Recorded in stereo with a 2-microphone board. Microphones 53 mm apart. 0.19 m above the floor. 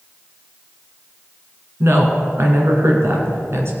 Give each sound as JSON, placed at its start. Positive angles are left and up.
{"t": 1.8, "sound": "a woman speaking", "side_deg": -55, "distance_m": 2.5}